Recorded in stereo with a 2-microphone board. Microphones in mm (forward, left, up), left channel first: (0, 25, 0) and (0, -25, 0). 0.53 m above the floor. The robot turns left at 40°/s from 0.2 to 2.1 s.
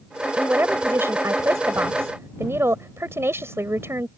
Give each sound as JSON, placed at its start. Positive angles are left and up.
{"t": 0.4, "sound": "a woman speaking", "azimuth_deg": -40}